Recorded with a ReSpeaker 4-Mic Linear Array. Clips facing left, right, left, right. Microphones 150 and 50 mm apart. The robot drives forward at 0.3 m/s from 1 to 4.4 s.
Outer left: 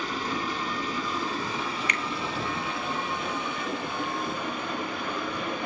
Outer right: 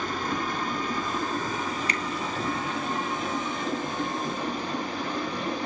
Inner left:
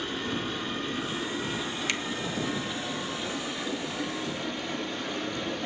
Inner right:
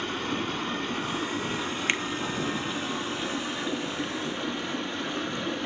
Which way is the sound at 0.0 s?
50° right (ahead or behind).